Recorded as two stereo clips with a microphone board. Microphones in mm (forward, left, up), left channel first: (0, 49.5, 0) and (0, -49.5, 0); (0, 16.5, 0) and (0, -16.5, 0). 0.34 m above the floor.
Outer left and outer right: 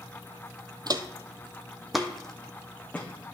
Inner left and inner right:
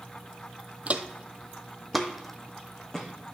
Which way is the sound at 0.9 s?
45° right (ahead or behind).